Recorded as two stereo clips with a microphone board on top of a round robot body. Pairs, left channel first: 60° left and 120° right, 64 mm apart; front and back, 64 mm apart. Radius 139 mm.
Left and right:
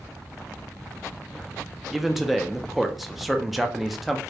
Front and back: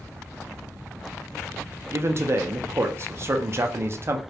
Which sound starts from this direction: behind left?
A man speaking, at 1.9 s.